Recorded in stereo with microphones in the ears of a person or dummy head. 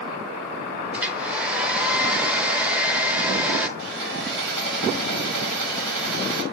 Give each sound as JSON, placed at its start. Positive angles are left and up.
{"t": 0.9, "sound": "a hair dryer", "side_deg": 0, "distance_m": 0.7}
{"t": 3.8, "sound": "sawing", "side_deg": -60, "distance_m": 4.0}